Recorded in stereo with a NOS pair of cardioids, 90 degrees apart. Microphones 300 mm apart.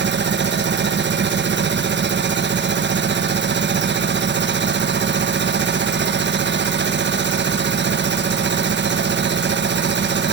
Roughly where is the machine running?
Ahead right.